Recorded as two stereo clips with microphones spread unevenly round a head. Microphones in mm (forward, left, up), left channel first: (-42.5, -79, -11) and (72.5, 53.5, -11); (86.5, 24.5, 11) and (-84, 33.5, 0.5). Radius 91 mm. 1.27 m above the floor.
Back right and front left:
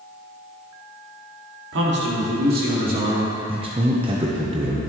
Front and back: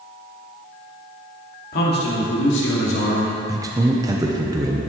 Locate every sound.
1.7 s a man speaking: 30° left, 2.5 m; by 3.3 s straight ahead, 3 m
3.5 s a man speaking: 110° left, 0.9 m